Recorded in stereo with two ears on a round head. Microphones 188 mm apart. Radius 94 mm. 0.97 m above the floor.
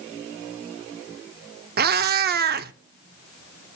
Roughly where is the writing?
No writing in this recording.